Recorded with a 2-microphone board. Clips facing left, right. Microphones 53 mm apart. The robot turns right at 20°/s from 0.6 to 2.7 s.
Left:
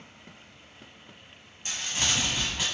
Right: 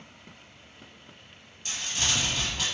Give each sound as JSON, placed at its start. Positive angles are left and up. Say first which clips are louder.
{"t": 1.6, "sound": "crumpling", "louder": "left 1 dB", "side_deg": 30, "distance_m": 1.2}